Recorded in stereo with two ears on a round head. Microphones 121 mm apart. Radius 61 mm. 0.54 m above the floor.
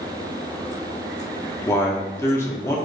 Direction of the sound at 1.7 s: 20° left (ahead or behind).